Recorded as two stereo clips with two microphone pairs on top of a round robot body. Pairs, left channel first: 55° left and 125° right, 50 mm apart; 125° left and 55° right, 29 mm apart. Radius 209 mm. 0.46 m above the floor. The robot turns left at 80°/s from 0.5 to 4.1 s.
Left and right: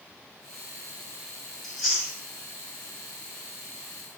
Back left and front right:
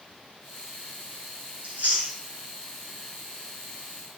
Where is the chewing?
15° right, 1.6 m; by 2.2 s 55° right, 1.6 m.